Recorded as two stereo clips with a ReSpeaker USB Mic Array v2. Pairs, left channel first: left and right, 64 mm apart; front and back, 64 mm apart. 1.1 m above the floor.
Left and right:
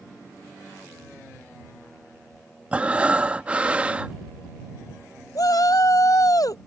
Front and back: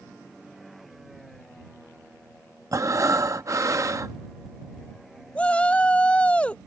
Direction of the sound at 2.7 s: 160° right.